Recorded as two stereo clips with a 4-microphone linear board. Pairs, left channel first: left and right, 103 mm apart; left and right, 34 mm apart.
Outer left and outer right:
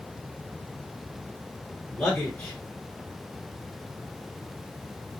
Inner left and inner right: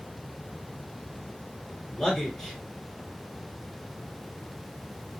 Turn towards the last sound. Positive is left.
turn(degrees=5)  # may be behind; listen again after turning